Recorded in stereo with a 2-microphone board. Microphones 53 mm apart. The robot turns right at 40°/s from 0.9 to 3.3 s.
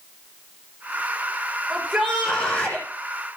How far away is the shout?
About 6.5 m.